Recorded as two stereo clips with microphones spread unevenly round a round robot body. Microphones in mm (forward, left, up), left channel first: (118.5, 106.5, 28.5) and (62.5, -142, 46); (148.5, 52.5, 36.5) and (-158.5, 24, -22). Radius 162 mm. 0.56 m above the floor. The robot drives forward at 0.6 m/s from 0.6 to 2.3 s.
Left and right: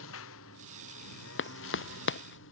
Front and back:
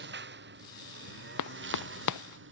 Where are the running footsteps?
35° left.